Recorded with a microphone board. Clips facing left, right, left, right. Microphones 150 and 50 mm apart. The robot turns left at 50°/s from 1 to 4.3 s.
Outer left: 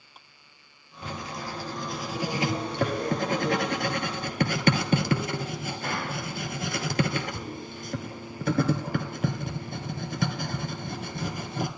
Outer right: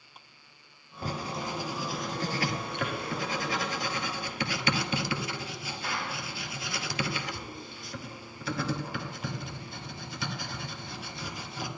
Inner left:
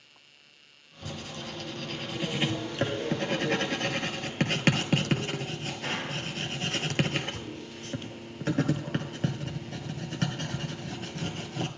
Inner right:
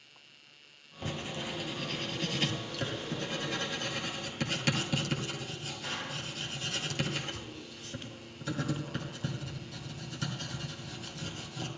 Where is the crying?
I don't hear crying.